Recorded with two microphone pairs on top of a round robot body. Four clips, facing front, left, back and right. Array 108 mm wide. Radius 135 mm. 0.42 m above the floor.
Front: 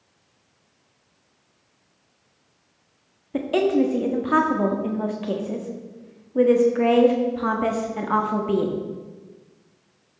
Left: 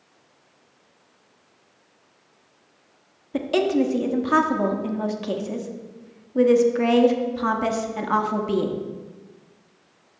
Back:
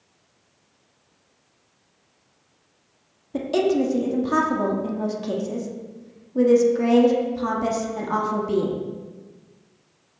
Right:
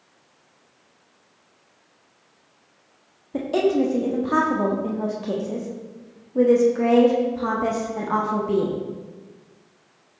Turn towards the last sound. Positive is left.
turn(degrees=75)